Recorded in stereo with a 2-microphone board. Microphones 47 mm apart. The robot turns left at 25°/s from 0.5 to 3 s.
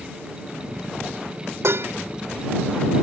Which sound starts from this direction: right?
Dishes clattering, at 1.6 s.